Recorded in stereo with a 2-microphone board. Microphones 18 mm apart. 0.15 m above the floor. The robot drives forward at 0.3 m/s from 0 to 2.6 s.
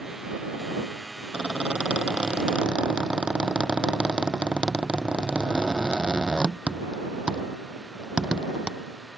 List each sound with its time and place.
1.3 s a squeak: 80° right; by 8.7 s 60° right (ahead or behind)